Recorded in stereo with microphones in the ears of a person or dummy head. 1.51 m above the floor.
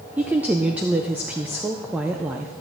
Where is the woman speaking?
5° right (ahead or behind), 0.6 m.